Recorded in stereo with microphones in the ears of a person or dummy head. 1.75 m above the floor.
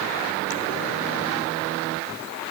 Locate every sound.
Only background noise.